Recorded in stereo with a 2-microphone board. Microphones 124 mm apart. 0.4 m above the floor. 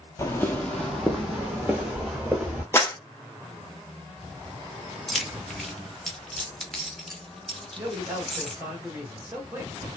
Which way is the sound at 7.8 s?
20° right (ahead or behind).